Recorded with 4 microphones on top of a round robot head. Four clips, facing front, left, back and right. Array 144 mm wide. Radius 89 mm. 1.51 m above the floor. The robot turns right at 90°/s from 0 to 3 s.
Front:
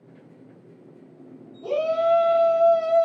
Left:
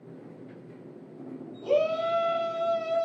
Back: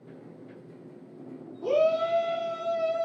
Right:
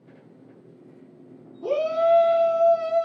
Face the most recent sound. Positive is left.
turn(degrees=-25)